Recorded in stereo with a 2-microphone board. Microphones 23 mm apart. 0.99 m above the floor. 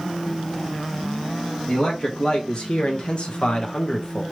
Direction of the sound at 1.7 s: 45° left (ahead or behind).